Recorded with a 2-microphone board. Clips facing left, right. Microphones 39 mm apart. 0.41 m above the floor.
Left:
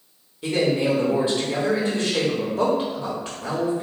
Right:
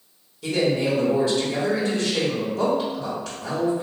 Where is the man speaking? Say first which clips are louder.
Left 1 dB; 30° left (ahead or behind), 1.3 m.